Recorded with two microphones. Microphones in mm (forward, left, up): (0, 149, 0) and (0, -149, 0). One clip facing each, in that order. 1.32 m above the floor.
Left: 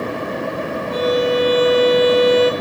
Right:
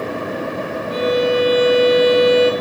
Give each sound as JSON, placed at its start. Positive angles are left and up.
{"t": 0.9, "sound": "a violin", "side_deg": 55, "distance_m": 3.0}